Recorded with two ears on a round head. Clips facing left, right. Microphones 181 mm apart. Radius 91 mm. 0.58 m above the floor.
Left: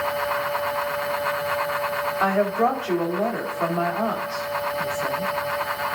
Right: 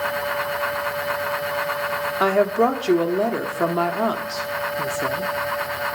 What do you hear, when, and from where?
2.2 s a woman speaking: 50° right (ahead or behind), 1.5 m